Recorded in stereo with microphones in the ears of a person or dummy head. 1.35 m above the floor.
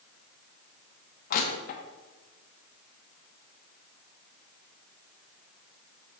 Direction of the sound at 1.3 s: 50° left (ahead or behind).